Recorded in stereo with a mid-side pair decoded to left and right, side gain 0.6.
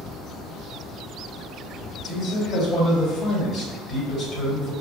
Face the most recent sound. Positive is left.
turn(degrees=45)